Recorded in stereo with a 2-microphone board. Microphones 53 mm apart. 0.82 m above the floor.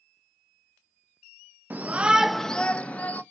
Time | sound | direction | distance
1.7 | a shout | 30° right (ahead or behind) | 0.7 m